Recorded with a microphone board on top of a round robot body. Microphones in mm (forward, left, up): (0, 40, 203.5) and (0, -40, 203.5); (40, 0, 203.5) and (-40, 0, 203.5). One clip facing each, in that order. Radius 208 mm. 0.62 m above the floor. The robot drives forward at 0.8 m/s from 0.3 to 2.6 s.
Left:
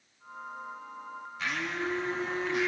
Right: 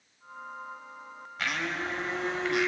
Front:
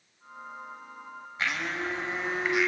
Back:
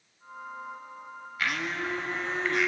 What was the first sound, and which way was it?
A blender, 65° right.